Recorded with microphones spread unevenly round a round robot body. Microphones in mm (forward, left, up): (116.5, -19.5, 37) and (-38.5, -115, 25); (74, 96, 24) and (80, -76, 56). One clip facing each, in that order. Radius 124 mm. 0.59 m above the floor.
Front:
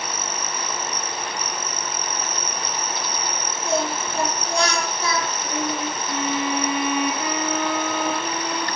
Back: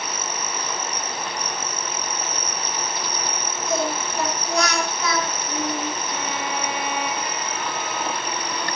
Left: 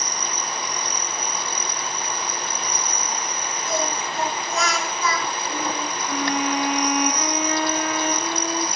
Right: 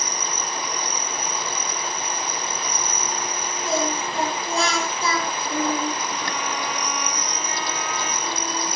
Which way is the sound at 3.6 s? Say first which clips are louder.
Front 1 dB, right 2 dB; 30° right.